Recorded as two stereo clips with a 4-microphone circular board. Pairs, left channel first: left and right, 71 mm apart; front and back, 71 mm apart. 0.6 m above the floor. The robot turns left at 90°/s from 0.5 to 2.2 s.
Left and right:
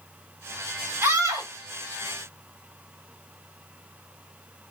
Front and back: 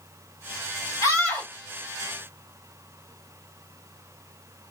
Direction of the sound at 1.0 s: 40° right.